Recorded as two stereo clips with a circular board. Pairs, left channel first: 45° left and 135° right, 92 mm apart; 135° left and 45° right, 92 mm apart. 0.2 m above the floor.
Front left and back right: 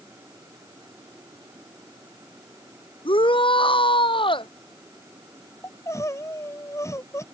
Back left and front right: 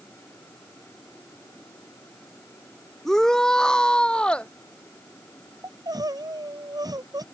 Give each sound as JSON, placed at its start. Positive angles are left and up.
{"t": 3.0, "sound": "a shout", "azimuth_deg": 50}
{"t": 5.6, "sound": "crying", "azimuth_deg": -10}